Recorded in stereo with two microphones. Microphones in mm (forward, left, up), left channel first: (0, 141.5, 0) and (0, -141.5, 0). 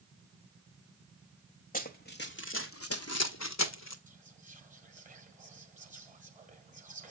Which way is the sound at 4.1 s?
25° right (ahead or behind).